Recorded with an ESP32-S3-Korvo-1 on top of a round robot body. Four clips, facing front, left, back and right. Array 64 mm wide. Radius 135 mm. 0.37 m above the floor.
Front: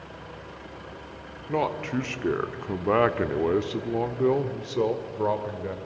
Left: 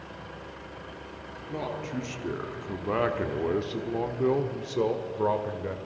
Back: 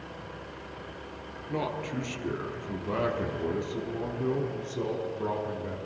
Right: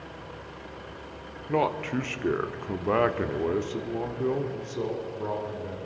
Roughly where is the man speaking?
Ahead right.